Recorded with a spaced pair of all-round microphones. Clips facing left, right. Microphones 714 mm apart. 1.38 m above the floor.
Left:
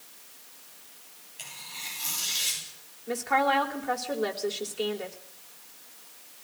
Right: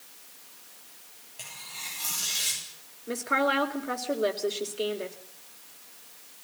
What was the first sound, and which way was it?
Tearing paper, 70° right (ahead or behind).